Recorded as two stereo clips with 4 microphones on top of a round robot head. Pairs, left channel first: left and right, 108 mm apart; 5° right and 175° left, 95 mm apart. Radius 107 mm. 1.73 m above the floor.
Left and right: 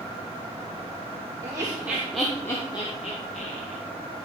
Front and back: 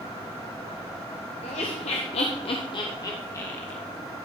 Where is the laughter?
20° right, 1.0 m; by 3.8 s 65° left, 1.0 m.